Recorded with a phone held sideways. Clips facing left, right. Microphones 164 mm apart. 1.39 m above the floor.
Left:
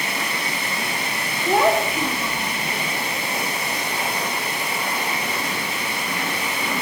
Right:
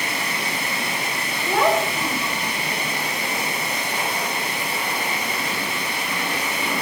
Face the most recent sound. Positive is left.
turn(degrees=15)  # may be behind; listen again after turning